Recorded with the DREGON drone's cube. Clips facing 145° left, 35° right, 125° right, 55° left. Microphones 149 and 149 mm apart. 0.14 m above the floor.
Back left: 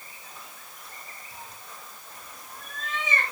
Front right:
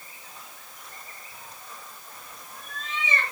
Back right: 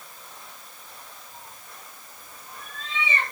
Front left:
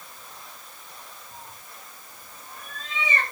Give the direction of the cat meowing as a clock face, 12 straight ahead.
9 o'clock.